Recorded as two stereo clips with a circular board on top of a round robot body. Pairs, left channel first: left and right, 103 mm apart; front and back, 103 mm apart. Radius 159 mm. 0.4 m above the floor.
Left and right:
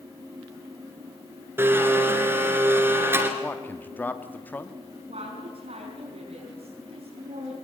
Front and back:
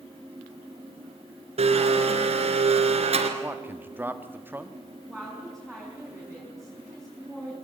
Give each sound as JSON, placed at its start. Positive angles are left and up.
{"t": 1.6, "sound": "a blender", "azimuth_deg": -160, "distance_m": 2.5}
{"t": 3.4, "sound": "a man speaking", "azimuth_deg": 140, "distance_m": 1.4}
{"t": 5.1, "sound": "a woman speaking", "azimuth_deg": -90, "distance_m": 5.5}